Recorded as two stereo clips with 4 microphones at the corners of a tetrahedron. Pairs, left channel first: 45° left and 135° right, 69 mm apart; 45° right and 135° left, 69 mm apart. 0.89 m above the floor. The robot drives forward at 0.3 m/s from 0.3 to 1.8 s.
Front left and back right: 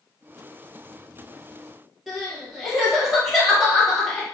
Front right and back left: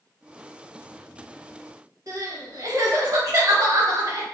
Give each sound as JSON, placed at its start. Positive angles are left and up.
{"t": 2.1, "sound": "crying", "azimuth_deg": 140, "distance_m": 0.9}